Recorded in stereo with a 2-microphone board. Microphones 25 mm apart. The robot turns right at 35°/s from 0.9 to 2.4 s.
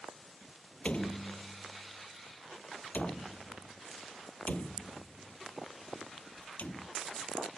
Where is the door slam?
50° left (ahead or behind); by 6.9 s 75° left (ahead or behind).